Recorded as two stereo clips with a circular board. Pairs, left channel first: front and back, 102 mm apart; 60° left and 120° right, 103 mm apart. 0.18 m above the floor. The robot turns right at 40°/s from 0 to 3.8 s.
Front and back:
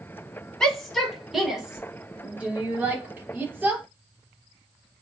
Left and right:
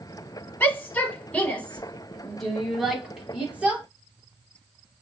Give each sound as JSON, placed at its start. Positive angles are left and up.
{"t": 0.6, "sound": "a shout", "azimuth_deg": 70, "distance_m": 1.0}